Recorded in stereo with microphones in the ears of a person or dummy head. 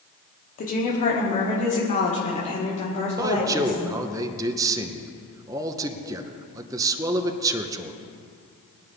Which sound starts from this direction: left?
A woman speaking, at 0.6 s.